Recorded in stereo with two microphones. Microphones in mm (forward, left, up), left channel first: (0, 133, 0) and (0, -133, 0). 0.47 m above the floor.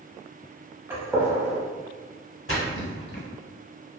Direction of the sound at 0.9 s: 10° right (ahead or behind).